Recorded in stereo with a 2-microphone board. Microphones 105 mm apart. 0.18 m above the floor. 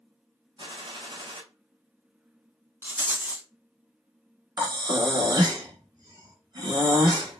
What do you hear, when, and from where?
0.6 s a gunshot: 50° right (ahead or behind), 1.0 m
2.8 s a rattle: 15° right (ahead or behind), 0.7 m
4.6 s breathing: 40° right (ahead or behind), 1.3 m